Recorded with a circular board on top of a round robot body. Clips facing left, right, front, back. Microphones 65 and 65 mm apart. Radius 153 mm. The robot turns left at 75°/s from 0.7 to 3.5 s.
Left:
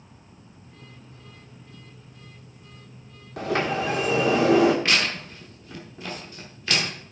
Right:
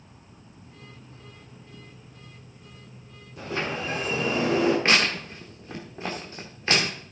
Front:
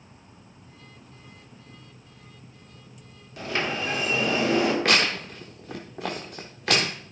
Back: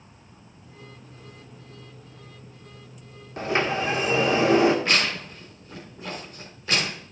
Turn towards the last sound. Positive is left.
turn(degrees=-30)